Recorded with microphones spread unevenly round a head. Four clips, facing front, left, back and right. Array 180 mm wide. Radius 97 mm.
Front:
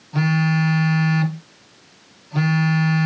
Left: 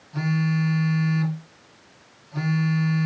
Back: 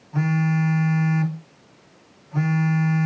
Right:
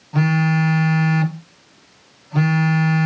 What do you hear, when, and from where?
0.1 s a phone buzzing: 70° right, 1.1 m